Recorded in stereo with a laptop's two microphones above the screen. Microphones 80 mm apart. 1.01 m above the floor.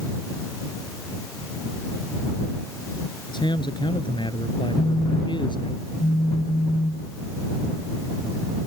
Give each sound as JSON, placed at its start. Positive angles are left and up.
{"t": 3.3, "sound": "a man speaking", "side_deg": 70}
{"t": 4.8, "sound": "a phone buzzing", "side_deg": 70}